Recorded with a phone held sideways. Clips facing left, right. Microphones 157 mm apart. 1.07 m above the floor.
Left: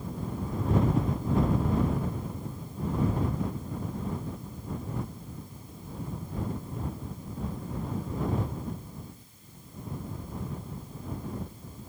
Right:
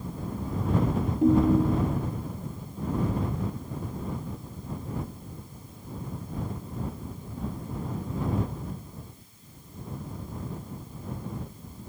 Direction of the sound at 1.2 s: 70° right (ahead or behind).